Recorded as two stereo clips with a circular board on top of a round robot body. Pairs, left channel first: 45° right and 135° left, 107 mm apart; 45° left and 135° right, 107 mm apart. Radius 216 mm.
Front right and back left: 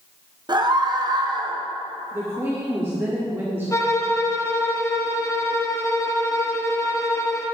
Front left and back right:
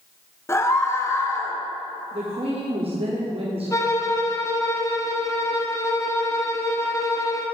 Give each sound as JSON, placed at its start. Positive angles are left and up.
{"t": 0.5, "sound": "a scream", "azimuth_deg": 100, "distance_m": 1.6}
{"t": 2.1, "sound": "a woman speaking", "azimuth_deg": -155, "distance_m": 1.5}
{"t": 3.7, "sound": "a violin", "azimuth_deg": 0, "distance_m": 1.3}